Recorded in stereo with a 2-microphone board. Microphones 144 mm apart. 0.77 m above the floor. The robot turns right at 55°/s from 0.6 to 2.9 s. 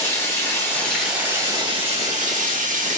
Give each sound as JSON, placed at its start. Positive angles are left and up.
{"t": 0.0, "sound": "running water", "azimuth_deg": 160, "distance_m": 1.1}